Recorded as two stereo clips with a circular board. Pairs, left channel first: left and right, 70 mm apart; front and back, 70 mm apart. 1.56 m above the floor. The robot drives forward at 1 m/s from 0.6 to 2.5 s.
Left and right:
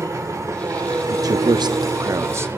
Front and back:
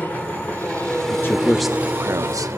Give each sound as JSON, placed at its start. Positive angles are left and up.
{"t": 0.0, "sound": "an engine running", "azimuth_deg": -60, "distance_m": 1.9}
{"t": 1.1, "sound": "a man speaking", "azimuth_deg": -50, "distance_m": 0.8}